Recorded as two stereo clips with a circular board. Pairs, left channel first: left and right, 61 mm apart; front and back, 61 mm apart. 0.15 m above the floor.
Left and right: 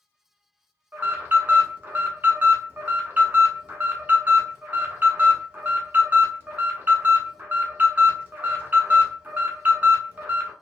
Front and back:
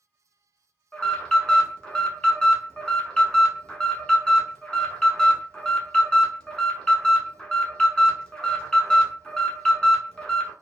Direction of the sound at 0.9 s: 65° right.